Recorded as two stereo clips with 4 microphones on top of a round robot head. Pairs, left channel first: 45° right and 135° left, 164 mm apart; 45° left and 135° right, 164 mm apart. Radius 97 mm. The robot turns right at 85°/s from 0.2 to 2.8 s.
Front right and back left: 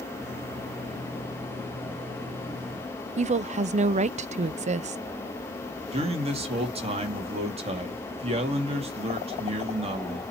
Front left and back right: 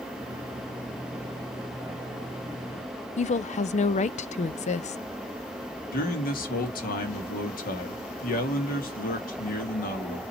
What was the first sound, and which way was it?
A woman speaking, 90° left.